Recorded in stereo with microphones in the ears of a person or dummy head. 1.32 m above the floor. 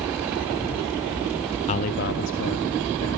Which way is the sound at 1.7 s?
30° left (ahead or behind).